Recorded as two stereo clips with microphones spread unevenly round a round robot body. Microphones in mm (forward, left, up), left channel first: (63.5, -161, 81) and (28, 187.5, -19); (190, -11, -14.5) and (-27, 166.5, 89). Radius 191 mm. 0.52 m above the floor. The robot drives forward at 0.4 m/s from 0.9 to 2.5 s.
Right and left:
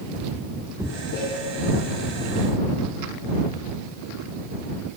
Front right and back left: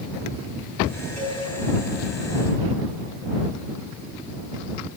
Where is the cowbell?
140° left, 5.5 m.